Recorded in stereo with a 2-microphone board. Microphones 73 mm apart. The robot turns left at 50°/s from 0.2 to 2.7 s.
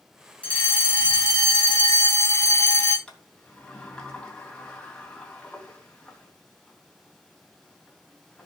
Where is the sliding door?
10° left (ahead or behind), 2.5 m.